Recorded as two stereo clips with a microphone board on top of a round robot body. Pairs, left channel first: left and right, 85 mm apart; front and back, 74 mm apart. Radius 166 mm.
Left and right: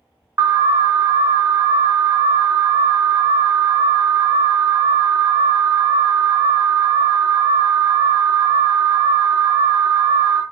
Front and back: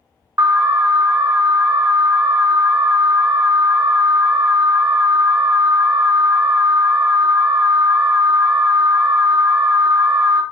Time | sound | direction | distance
0.4 | an alarm | 145° right | 0.7 m